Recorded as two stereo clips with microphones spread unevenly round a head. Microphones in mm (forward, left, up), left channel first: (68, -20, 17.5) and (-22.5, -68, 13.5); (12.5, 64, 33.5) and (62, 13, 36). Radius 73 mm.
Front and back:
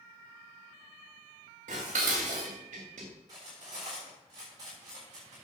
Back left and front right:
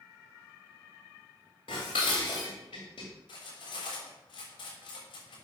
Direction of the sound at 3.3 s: 140° left.